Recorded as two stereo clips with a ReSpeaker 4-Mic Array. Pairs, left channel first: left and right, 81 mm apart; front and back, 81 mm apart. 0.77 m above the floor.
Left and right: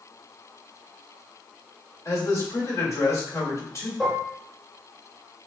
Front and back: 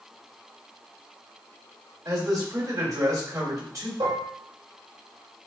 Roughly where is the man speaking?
Behind left.